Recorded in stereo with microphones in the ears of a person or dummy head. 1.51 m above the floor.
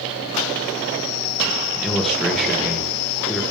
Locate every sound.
1.8 s a man speaking: 5° left (ahead or behind), 1.3 m